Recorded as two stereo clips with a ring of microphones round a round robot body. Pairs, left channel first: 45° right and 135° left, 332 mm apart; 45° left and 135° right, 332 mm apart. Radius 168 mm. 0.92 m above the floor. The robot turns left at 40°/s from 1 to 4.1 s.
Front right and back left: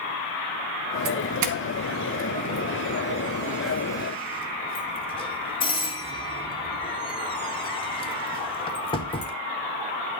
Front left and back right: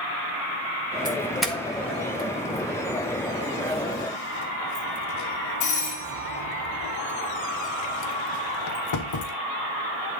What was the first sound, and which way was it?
A doorbell, 150° left.